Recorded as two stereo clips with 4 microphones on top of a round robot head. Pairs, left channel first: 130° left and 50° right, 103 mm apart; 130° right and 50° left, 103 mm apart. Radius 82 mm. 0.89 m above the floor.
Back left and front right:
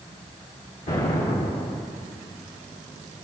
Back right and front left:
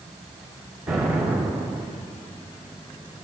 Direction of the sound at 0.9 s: 135° left.